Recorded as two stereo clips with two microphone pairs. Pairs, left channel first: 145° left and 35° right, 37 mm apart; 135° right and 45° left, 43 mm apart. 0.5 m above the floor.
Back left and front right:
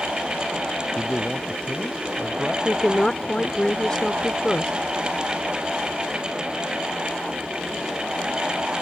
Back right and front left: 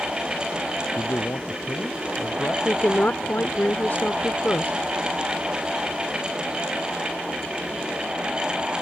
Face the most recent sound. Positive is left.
turn(degrees=-145)